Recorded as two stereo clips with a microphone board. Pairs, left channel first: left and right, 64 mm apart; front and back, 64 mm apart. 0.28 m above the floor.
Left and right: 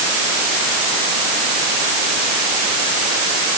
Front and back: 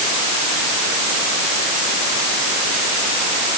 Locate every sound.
Only background noise.